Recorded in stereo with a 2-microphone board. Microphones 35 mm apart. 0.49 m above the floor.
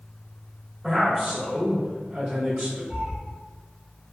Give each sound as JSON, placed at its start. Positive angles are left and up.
{"t": 0.8, "sound": "a man speaking", "side_deg": -25, "distance_m": 1.5}
{"t": 2.9, "sound": "a cat meowing", "side_deg": -30, "distance_m": 1.2}